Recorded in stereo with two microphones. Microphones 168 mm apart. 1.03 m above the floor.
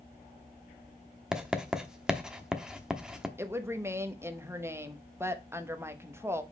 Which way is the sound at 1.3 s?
5° right (ahead or behind).